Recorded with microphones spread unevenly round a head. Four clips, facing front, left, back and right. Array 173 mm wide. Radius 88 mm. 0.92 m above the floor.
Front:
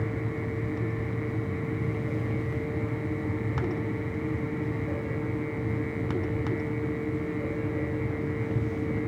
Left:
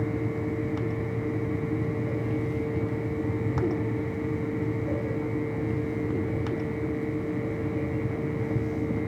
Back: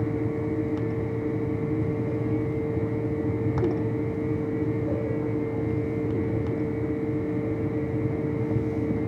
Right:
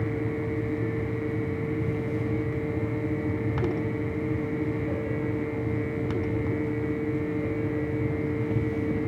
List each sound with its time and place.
Only background noise.